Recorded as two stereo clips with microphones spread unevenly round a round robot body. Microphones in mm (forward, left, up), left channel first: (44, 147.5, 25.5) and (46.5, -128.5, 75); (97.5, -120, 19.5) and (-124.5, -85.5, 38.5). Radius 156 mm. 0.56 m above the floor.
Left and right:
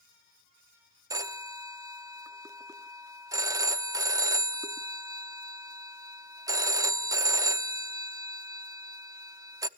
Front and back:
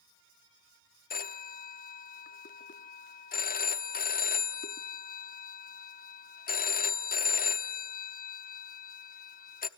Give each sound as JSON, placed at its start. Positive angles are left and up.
{"t": 1.1, "sound": "a phone ringing", "azimuth_deg": -5, "distance_m": 0.8}